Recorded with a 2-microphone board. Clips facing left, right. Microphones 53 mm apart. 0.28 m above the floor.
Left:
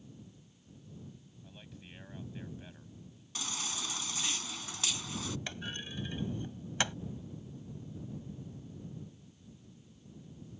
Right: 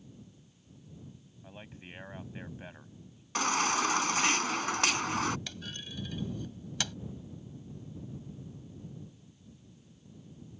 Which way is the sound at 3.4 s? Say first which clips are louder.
Right 13 dB; 65° right (ahead or behind).